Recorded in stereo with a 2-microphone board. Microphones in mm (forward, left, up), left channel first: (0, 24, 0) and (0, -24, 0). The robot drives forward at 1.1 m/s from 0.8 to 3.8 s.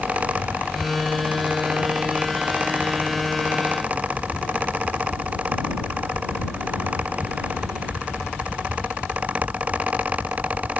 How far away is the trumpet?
No trumpet in this recording.